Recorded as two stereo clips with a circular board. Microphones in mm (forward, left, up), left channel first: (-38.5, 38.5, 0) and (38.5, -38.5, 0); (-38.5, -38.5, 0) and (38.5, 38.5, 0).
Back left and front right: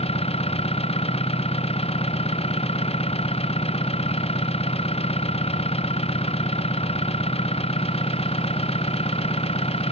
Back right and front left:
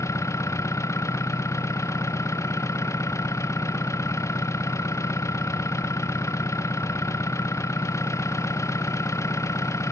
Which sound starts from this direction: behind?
An engine running, at 0.0 s.